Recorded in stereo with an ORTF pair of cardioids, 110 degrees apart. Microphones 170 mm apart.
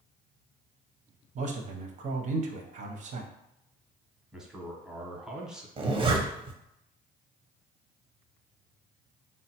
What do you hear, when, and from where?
1.4 s a man speaking: 45° right, 0.7 m
4.3 s a man speaking: 5° right, 0.8 m
5.8 s a zipper: 30° right, 0.7 m